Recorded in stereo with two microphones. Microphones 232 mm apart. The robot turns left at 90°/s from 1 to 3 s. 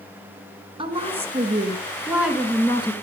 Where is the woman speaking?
25° right (ahead or behind), 1.3 m; by 2.9 s 20° left (ahead or behind), 1.3 m.